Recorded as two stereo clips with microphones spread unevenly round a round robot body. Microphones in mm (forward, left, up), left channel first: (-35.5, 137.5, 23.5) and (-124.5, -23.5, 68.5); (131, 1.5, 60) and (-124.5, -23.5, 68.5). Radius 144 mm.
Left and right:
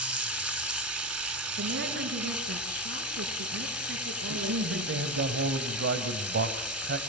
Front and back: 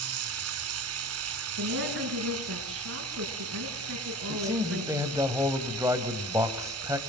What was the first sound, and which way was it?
Running water, 155° left.